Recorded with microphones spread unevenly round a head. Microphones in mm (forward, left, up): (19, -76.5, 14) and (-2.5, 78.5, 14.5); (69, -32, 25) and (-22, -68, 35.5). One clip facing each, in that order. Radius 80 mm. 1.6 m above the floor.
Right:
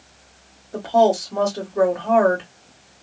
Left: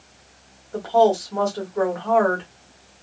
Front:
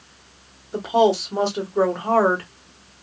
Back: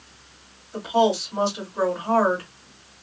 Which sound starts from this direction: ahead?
A woman speaking, at 0.7 s.